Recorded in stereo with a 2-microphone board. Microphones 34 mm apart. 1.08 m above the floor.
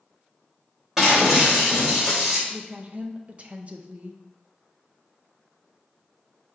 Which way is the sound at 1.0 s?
15° right (ahead or behind).